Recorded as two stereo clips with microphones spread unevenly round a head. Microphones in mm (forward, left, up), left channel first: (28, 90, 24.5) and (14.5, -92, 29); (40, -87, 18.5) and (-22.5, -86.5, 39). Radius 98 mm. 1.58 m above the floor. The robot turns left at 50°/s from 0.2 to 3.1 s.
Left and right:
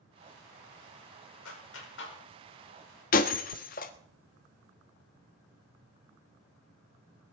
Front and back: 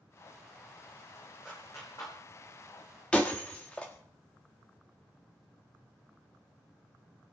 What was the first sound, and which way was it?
A clap, 90° left.